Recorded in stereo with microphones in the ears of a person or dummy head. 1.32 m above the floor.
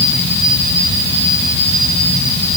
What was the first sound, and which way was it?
Only background noise.